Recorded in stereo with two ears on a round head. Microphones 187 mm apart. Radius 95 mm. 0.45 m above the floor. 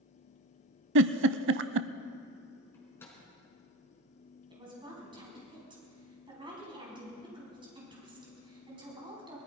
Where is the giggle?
65° right (ahead or behind), 0.5 m.